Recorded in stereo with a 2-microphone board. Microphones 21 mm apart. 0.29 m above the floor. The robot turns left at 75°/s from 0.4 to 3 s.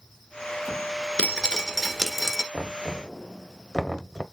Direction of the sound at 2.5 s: 20° left (ahead or behind).